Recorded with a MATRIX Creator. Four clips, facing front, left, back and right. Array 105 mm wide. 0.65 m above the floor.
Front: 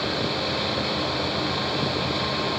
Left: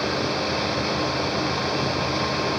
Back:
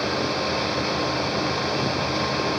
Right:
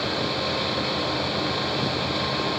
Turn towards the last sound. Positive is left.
No sound to turn to.